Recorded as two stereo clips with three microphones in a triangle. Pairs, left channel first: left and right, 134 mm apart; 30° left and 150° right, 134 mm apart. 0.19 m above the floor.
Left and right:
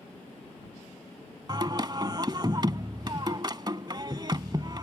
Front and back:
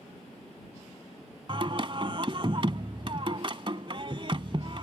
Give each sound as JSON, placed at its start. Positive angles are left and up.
{"t": 1.5, "sound": "singing", "azimuth_deg": -130}